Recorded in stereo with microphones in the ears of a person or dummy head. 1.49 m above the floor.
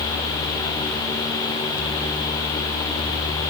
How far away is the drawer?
I don't hear a drawer.